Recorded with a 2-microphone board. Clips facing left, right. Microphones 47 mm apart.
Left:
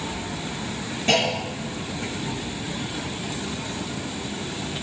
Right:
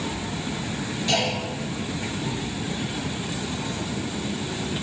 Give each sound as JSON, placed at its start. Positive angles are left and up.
{"t": 1.1, "sound": "a clunk", "side_deg": 40, "distance_m": 4.0}